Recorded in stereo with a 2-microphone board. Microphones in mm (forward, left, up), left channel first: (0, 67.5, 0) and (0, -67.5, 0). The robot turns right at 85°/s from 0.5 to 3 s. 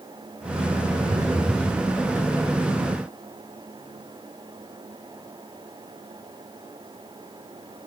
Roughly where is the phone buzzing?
Ahead right.